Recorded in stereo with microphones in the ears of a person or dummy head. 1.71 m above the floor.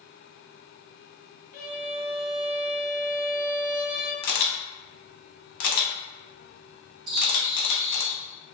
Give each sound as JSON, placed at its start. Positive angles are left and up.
{"t": 1.5, "sound": "a violin", "side_deg": 55, "distance_m": 1.0}
{"t": 4.2, "sound": "a camera shutter", "side_deg": 65, "distance_m": 0.8}
{"t": 7.1, "sound": "a bird", "side_deg": -55, "distance_m": 1.3}